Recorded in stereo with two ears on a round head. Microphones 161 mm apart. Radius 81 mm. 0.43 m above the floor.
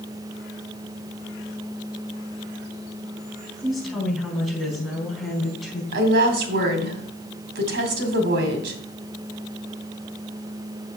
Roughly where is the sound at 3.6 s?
Centre.